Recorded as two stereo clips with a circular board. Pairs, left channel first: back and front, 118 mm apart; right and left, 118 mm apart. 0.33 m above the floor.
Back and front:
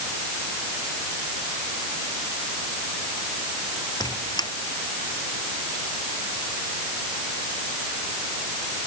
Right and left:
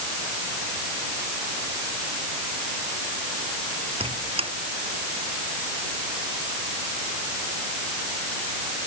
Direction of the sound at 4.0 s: 125° left.